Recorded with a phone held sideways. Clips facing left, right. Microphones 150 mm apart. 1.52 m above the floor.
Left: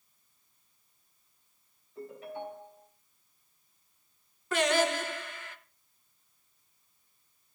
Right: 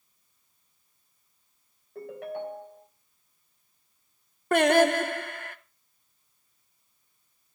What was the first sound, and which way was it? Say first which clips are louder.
A ringtone: right 5 dB; 70° right (ahead or behind).